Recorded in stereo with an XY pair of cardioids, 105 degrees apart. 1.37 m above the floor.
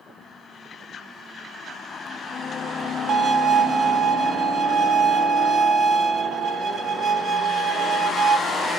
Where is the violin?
45° right, 1.2 m.